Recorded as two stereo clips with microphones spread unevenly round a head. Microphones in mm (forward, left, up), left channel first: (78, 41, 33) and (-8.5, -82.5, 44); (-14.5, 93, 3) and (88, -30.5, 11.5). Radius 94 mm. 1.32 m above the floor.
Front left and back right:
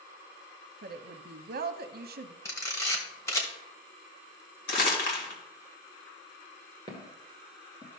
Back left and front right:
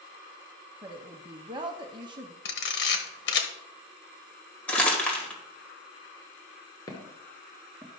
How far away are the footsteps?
About 1.3 m.